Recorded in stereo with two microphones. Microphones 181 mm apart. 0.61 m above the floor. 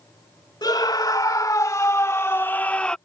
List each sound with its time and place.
0.6 s a scream: 20° left (ahead or behind); by 3.0 s 5° left (ahead or behind)